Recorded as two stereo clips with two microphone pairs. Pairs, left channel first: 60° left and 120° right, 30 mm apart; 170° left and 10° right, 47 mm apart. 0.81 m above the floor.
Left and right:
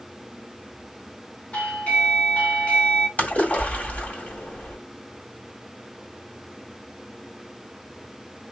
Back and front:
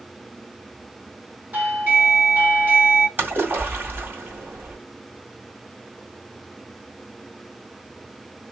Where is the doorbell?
35° left, 2.5 m.